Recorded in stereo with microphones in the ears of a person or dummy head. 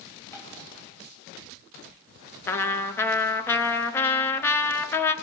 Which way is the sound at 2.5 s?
10° left (ahead or behind).